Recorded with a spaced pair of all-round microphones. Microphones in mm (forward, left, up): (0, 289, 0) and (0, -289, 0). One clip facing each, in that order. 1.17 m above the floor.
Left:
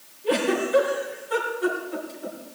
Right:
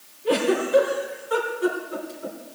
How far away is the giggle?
About 3 m.